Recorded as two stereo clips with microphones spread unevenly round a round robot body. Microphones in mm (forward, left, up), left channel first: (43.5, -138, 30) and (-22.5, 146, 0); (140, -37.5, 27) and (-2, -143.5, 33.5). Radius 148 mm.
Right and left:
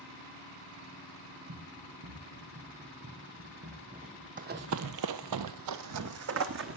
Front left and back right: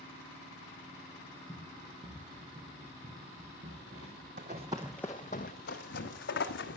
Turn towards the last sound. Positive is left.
turn(degrees=55)